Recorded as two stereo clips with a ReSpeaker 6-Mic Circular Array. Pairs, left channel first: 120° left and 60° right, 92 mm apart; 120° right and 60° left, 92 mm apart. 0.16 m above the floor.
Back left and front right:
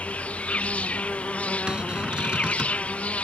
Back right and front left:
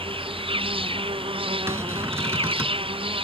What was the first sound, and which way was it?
An insect, 45° left.